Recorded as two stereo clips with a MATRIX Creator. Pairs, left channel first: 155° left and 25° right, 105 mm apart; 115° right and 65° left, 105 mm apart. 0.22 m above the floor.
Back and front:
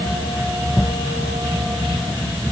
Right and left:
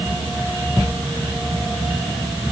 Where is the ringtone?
I don't hear a ringtone.